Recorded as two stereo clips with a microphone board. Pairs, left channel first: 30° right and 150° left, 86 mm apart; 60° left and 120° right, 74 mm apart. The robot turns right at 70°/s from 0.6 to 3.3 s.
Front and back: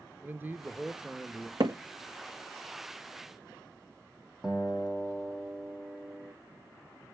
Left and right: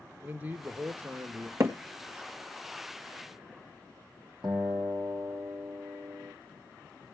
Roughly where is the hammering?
Behind.